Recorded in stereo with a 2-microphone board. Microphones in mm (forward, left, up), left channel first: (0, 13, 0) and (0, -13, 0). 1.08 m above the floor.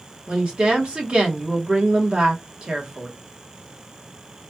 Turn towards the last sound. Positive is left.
turn(degrees=-55)  # may be behind; listen again after turning